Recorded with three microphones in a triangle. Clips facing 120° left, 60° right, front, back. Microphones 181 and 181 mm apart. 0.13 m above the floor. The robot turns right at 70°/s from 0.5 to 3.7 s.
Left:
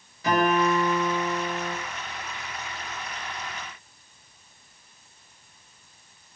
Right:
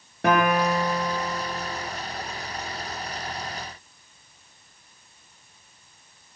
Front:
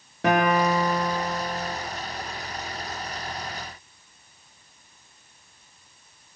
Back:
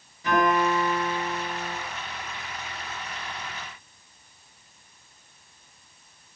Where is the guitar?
25° right, 8 m; by 1.8 s 60° left, 8 m.